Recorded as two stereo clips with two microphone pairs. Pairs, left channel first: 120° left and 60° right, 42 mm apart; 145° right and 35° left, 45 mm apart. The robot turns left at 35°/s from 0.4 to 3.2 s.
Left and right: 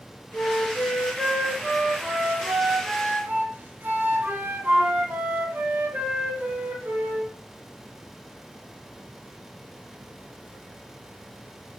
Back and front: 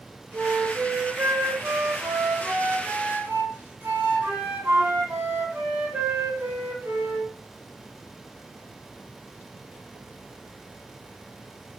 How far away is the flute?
About 4 m.